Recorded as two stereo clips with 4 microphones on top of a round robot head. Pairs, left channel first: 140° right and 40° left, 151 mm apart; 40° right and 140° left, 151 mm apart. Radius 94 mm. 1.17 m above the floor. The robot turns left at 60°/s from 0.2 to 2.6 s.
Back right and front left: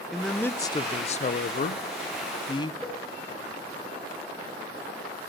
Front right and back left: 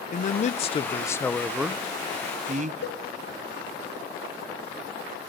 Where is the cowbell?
50° right, 1.2 m.